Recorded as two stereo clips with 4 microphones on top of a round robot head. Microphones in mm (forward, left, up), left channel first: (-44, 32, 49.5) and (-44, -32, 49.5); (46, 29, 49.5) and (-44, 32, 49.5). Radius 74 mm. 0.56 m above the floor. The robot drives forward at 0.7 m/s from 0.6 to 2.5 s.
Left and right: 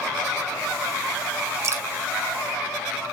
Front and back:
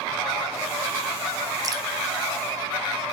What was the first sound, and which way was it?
Dripping, 130° right.